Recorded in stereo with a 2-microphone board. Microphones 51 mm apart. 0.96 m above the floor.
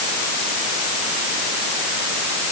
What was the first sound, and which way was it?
Only background noise.